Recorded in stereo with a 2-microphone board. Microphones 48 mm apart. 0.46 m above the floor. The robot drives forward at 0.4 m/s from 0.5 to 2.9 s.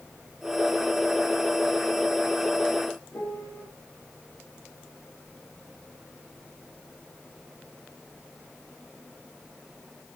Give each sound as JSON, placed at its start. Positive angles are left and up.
{"t": 3.1, "sound": "a piano", "side_deg": 60, "distance_m": 3.5}